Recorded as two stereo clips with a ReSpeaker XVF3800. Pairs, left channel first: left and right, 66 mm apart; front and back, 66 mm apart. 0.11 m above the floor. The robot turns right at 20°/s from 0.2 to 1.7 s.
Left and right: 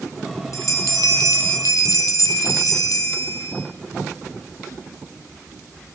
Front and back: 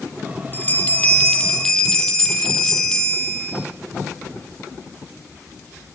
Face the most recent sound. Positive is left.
turn(degrees=80)